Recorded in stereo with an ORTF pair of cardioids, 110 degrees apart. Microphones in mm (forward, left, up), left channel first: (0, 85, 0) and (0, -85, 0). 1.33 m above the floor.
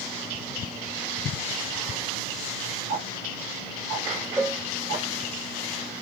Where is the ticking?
60° right, 3 m.